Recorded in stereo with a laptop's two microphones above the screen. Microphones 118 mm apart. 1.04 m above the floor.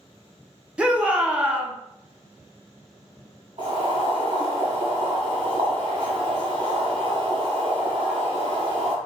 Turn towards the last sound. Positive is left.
turn(degrees=-45)  # may be behind; listen again after turning